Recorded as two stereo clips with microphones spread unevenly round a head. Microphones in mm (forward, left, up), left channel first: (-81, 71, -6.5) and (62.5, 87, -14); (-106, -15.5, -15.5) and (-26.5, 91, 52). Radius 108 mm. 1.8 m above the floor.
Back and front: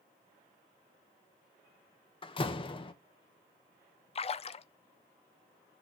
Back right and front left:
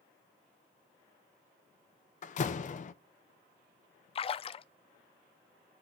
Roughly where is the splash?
Behind.